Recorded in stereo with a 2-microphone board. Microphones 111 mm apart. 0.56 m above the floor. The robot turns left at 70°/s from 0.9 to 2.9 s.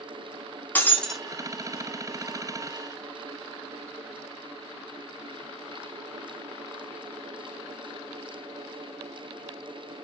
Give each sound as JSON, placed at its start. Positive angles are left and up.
{"t": 0.8, "sound": "breaking glass", "side_deg": 15, "distance_m": 0.7}